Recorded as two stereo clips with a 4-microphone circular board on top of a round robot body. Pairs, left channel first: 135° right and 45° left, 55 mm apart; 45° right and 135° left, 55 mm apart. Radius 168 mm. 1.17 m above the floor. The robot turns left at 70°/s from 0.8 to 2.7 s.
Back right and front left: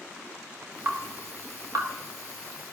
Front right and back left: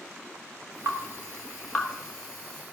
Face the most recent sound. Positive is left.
turn(degrees=-35)